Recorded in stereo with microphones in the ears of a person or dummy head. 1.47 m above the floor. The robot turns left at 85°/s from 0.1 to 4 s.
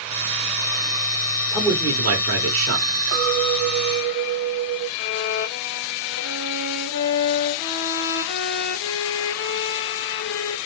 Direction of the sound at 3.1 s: 85° right.